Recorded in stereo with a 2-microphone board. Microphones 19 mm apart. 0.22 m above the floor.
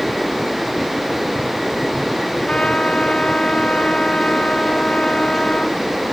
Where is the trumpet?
55° left (ahead or behind).